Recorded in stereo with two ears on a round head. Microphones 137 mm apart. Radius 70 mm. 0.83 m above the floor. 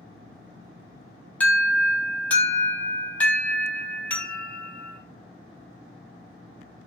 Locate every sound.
1.4 s an alarm: 10° left (ahead or behind), 4 m